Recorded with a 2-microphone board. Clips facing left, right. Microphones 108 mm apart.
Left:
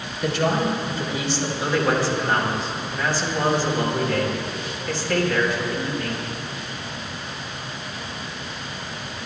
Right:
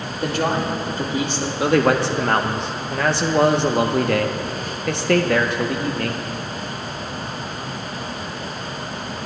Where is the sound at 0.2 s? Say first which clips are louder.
Even; 45° right (ahead or behind), 1.8 m.